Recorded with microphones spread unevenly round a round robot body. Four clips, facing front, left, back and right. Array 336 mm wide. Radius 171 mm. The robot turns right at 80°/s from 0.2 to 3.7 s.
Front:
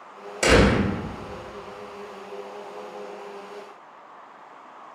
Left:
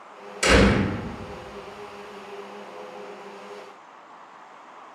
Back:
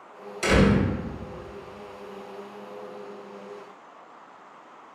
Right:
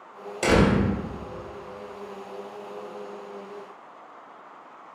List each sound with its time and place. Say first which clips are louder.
0.4 s a door slam: left 1 dB, front 3 dB; 25° right, 1.5 m; by 0.8 s 5° left, 1.5 m